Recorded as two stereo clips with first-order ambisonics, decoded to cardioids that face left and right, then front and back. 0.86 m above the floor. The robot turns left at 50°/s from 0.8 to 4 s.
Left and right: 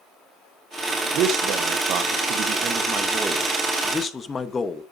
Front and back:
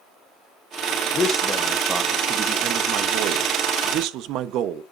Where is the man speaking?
55° right, 1.0 m; by 4.8 s 160° left, 1.0 m.